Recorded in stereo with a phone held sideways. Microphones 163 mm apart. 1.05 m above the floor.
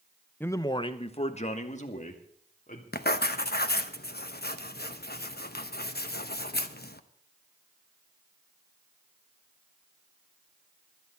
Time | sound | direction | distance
0.4 | a man speaking | 10° left (ahead or behind) | 0.7 m
2.9 | writing | 75° left (ahead or behind) | 0.8 m